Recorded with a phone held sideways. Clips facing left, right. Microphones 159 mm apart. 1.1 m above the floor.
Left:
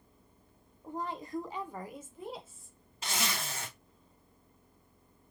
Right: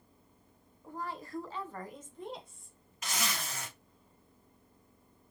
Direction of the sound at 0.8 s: 20° left (ahead or behind).